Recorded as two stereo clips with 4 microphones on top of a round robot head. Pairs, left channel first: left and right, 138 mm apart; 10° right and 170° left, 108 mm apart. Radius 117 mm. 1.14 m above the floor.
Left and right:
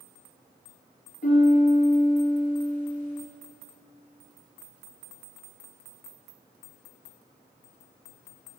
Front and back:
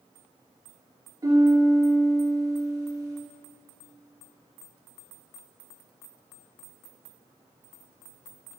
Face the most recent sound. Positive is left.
turn(degrees=110)